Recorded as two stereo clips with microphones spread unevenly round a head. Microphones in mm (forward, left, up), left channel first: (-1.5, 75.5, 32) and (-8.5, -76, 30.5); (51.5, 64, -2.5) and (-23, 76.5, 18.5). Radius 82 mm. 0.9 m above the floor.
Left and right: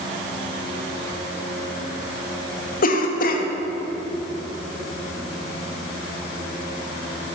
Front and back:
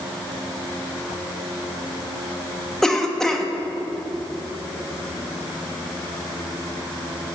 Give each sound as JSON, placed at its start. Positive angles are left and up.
{"t": 2.8, "sound": "a cough", "azimuth_deg": 65, "distance_m": 1.5}